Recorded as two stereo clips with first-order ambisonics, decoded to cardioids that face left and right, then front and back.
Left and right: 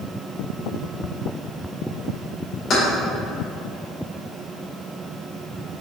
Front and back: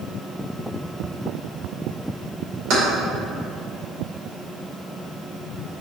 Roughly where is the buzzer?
I don't hear a buzzer.